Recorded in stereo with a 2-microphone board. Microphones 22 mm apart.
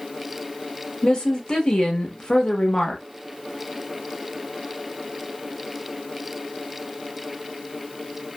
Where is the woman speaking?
35° left (ahead or behind), 0.9 m.